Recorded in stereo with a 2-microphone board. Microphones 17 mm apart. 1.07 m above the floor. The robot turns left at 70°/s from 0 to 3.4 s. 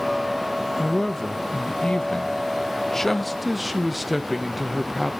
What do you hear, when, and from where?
0.8 s a woman speaking: 170° left, 1.0 m; by 5.1 s 10° right, 1.0 m